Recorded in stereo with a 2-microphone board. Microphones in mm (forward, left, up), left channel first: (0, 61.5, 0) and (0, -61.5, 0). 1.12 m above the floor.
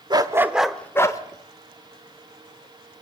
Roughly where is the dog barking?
Right.